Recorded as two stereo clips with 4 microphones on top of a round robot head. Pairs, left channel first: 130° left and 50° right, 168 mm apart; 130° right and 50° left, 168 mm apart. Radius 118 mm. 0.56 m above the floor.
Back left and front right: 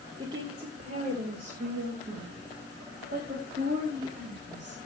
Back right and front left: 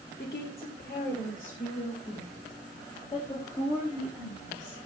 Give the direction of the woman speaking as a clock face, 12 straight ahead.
4 o'clock.